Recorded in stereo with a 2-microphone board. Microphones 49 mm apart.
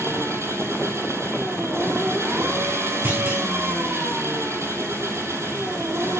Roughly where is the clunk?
Right.